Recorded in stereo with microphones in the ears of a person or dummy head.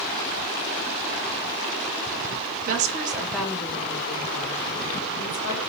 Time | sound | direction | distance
2.7 | a woman speaking | 45° right (ahead or behind) | 0.7 m